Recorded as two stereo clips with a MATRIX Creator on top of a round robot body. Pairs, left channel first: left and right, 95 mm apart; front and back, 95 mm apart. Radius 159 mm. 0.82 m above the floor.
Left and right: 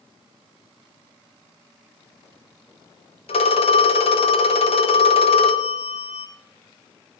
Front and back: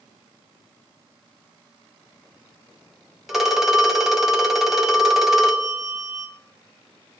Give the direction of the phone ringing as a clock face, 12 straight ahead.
9 o'clock.